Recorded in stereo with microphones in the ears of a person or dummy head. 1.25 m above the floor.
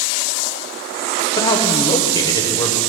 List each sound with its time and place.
1.4 s a man speaking: 25° left (ahead or behind), 1.0 m